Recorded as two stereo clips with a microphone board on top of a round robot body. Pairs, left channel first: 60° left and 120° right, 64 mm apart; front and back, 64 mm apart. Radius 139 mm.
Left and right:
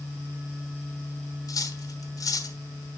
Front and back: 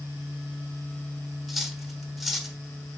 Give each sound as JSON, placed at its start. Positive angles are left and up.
{"t": 1.5, "sound": "cutlery clinking", "azimuth_deg": 90, "distance_m": 1.2}